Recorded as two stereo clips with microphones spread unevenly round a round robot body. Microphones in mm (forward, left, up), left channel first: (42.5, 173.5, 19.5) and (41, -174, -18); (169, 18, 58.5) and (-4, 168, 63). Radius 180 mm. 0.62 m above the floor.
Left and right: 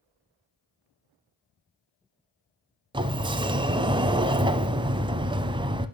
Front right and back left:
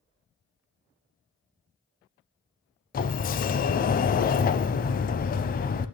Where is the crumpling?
I don't hear crumpling.